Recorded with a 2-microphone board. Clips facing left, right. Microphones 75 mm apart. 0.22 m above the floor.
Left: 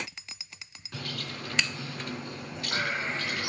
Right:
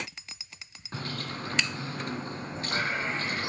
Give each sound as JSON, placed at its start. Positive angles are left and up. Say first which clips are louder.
{"t": 0.9, "sound": "a bird", "louder": "right 2 dB", "side_deg": -30, "distance_m": 2.5}